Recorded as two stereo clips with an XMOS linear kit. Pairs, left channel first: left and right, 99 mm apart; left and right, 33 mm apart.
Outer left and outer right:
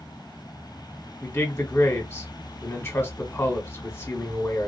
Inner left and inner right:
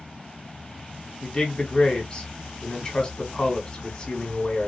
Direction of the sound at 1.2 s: 25° left (ahead or behind).